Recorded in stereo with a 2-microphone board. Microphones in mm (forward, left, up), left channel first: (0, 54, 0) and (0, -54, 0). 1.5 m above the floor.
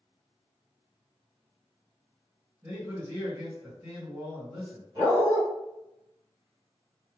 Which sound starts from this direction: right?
A dog barking, at 5.0 s.